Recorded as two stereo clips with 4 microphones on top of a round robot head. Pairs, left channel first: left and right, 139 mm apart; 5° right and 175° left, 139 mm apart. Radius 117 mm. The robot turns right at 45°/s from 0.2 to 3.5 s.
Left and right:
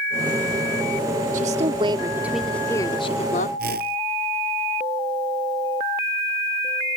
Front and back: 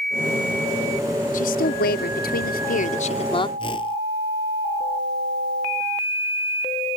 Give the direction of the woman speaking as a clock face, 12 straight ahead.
2 o'clock.